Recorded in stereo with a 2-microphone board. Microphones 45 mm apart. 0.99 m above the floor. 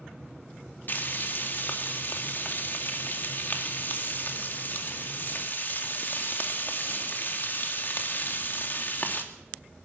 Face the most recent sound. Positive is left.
turn(degrees=45)  # may be behind; listen again after turning